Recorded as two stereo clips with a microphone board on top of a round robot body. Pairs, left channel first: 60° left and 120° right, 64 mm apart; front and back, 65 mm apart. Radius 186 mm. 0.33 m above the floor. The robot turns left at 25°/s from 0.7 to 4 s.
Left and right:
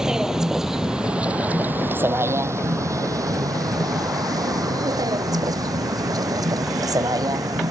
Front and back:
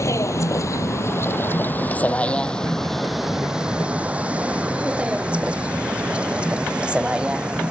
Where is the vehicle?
40° right; by 7.7 s 105° right.